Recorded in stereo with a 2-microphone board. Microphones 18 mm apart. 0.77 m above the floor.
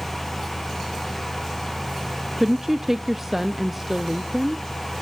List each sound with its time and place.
2.4 s a woman speaking: 15° right (ahead or behind), 0.6 m